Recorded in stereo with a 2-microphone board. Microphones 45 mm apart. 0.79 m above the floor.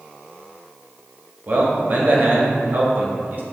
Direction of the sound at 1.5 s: 45° right (ahead or behind).